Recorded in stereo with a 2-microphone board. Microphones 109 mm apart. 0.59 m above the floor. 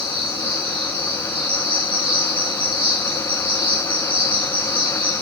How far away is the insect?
About 3 m.